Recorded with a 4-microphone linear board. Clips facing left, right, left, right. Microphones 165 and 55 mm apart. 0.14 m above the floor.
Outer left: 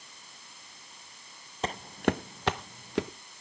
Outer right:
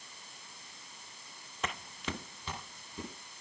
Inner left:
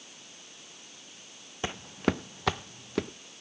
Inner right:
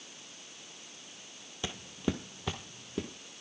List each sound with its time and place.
1.6 s footsteps: 30° left (ahead or behind), 0.7 m; by 3.1 s 80° left, 1.3 m